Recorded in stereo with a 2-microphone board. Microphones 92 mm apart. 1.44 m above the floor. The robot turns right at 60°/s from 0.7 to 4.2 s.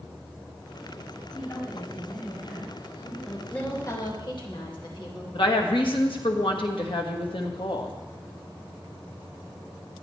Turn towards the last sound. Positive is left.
turn(degrees=65)  # may be behind; listen again after turning